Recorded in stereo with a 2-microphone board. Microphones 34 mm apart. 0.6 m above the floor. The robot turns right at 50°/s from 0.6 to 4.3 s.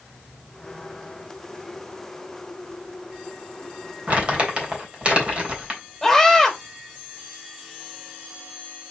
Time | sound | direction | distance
4.1 | crumpling | 45° right (ahead or behind) | 3.5 m
6.0 | a scream | 5° left (ahead or behind) | 3.5 m